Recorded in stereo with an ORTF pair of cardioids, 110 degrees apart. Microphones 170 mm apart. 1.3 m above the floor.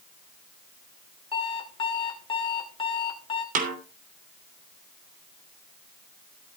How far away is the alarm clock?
About 2.5 m.